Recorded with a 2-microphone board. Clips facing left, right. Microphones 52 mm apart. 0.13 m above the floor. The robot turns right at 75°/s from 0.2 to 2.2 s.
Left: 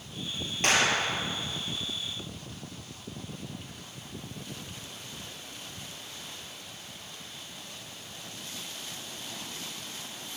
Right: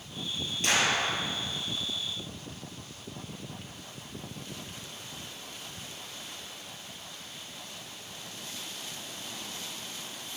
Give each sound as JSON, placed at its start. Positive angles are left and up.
{"t": 0.6, "sound": "a clap", "azimuth_deg": 50, "distance_m": 2.0}